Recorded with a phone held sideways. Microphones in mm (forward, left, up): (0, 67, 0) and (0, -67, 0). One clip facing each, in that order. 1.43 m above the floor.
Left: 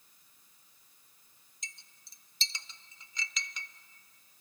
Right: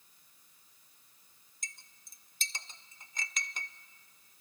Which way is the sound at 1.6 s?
50° right (ahead or behind).